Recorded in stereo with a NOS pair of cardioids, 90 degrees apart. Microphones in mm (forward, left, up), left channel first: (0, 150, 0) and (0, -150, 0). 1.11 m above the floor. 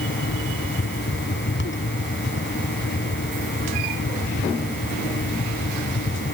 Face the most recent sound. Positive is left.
turn(degrees=35)